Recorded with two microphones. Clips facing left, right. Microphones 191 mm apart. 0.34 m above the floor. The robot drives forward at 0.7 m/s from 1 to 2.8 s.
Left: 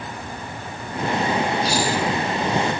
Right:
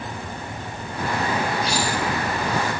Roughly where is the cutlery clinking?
Left.